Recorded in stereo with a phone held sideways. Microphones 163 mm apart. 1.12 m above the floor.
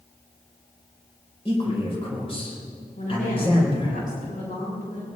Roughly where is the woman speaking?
Left.